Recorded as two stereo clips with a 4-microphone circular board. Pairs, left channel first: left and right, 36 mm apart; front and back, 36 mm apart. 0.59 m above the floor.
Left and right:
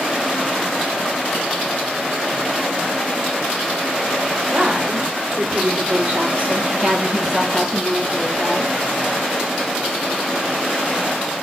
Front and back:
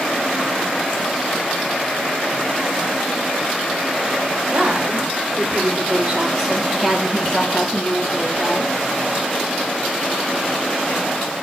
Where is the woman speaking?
130° right, 3 m; by 8.8 s 25° left, 2 m.